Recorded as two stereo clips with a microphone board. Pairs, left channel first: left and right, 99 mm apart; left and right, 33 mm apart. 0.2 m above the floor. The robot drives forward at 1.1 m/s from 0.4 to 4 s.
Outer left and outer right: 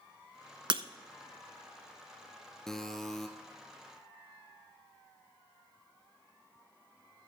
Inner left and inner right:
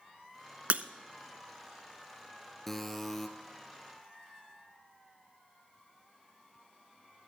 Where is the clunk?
No clunk in this recording.